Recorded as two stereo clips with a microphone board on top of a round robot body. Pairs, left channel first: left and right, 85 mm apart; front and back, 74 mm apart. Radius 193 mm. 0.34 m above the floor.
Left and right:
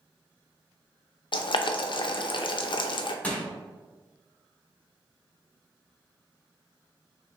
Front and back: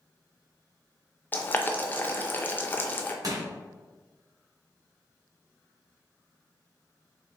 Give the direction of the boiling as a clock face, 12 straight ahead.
10 o'clock.